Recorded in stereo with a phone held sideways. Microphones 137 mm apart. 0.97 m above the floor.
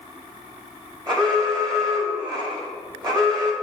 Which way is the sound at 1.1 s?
35° right (ahead or behind).